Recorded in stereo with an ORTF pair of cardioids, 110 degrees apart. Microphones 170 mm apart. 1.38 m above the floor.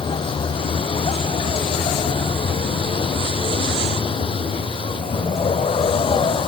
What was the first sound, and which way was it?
A vehicle, 30° left.